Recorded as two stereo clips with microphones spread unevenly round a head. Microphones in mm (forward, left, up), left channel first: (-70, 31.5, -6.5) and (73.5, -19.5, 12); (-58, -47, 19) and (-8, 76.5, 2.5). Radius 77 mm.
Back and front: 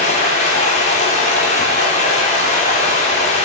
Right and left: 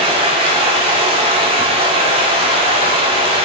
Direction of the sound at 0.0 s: 115° left.